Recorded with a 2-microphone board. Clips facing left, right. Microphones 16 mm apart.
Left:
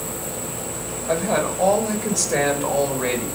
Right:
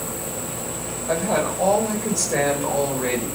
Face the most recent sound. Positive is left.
turn(degrees=20)  # may be behind; listen again after turning